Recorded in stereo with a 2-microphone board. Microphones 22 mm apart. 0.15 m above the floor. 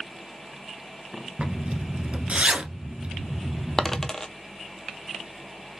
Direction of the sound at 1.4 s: 55° right (ahead or behind).